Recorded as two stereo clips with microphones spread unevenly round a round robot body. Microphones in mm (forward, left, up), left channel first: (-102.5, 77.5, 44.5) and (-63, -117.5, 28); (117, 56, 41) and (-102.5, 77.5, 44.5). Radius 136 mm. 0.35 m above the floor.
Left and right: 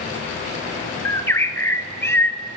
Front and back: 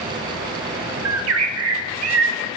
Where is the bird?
Straight behind, 0.5 m.